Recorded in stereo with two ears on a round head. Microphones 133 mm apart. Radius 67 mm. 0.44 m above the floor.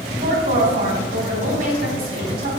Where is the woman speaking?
65° right (ahead or behind), 2.5 m.